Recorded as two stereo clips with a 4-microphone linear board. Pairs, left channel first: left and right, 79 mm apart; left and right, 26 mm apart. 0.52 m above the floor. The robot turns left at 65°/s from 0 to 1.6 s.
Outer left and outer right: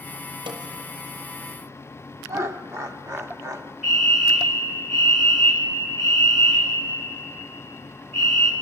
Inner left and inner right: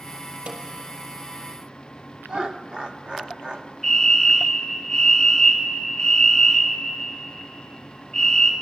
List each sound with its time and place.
0.5 s a snare drum: 85° right, 3 m; by 0.6 s 80° right, 3 m
2.3 s laughter: 35° right (ahead or behind), 1.1 m
3.8 s a fire alarm: 5° right (ahead or behind), 3.5 m